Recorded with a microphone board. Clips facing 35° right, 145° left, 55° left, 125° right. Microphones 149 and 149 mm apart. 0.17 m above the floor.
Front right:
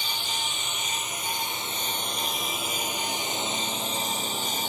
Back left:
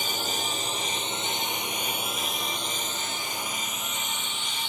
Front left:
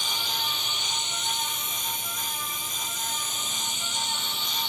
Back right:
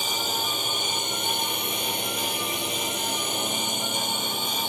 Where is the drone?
170° right; by 4.7 s 80° right.